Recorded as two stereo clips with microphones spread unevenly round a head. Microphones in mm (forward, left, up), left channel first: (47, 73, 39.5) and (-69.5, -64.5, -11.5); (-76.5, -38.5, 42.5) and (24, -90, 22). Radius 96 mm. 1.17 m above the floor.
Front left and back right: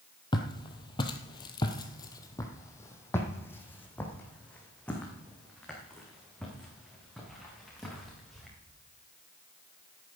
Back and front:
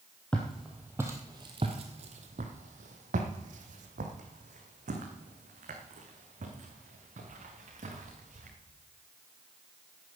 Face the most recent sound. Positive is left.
turn(degrees=-35)